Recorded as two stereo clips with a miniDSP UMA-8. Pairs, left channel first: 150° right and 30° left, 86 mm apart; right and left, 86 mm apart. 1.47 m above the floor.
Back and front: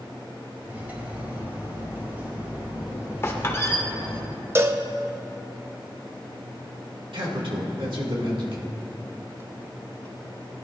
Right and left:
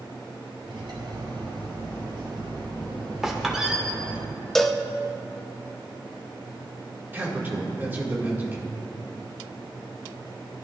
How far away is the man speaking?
About 2 m.